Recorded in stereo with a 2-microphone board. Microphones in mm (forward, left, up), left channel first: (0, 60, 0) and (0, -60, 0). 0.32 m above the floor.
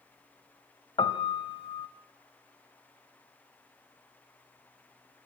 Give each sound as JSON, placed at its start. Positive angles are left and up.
{"t": 1.0, "sound": "a piano", "side_deg": 45, "distance_m": 1.4}